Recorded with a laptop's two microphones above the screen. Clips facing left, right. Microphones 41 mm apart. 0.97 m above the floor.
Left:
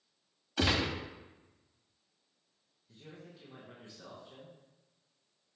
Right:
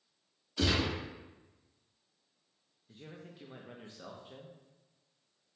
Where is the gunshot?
60° left (ahead or behind), 0.8 m.